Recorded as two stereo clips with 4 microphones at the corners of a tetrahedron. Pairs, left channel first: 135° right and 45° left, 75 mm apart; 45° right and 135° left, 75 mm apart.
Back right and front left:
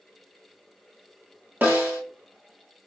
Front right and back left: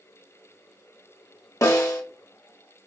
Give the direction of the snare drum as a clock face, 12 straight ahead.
12 o'clock.